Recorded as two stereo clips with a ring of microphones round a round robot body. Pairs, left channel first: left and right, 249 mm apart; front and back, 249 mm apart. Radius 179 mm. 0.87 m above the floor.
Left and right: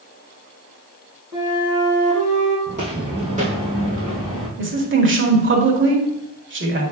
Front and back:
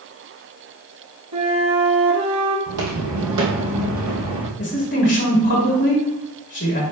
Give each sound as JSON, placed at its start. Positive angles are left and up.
{"t": 1.3, "sound": "a flute", "azimuth_deg": -175, "distance_m": 2.0}
{"t": 2.7, "sound": "footsteps", "azimuth_deg": -160, "distance_m": 1.7}
{"t": 4.6, "sound": "a woman speaking", "azimuth_deg": -50, "distance_m": 2.0}